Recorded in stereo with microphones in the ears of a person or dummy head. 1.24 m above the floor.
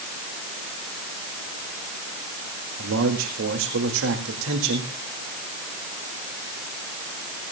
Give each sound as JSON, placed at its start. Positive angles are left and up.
{"t": 2.8, "sound": "a man speaking", "side_deg": -70, "distance_m": 2.0}